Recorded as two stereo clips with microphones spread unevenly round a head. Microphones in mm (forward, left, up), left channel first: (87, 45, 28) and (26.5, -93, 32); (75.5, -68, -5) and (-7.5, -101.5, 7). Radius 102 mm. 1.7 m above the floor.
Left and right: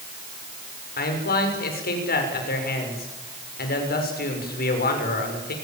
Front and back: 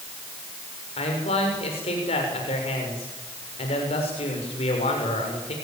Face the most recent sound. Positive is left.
turn(degrees=50)